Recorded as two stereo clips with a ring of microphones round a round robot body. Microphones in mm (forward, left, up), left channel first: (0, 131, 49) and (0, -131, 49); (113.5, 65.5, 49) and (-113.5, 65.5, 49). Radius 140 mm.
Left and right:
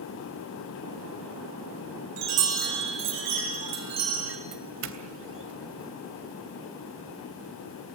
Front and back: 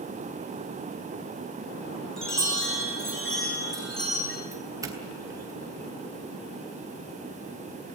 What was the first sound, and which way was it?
A chime, 90° right.